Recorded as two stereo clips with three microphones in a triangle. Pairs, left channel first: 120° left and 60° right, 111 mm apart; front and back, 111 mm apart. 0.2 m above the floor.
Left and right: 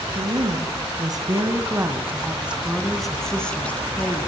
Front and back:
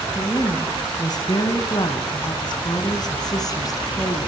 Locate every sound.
0.1 s a woman speaking: 50° right, 2.5 m; by 4.3 s 50° left, 3 m